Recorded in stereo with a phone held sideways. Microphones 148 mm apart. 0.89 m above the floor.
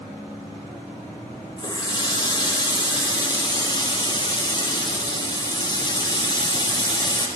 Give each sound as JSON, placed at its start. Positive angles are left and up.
{"t": 1.6, "sound": "a running tap", "side_deg": 30, "distance_m": 0.6}